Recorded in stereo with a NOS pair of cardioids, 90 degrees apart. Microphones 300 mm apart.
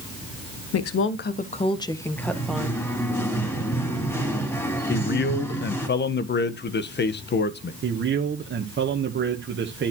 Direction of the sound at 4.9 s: 35° left.